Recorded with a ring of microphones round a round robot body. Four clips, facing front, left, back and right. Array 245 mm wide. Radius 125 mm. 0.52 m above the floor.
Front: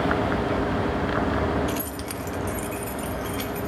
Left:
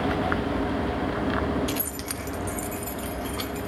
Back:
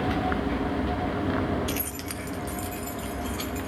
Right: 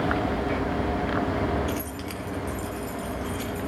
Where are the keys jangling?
120° left, 0.7 m; by 3.7 s 70° left, 3 m.